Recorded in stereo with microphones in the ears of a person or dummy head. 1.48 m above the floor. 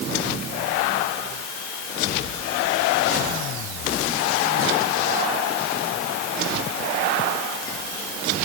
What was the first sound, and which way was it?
Only background noise.